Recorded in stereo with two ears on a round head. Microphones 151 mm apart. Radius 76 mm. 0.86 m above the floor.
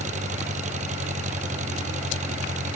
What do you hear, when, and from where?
0.0 s an engine running: 45° right (ahead or behind)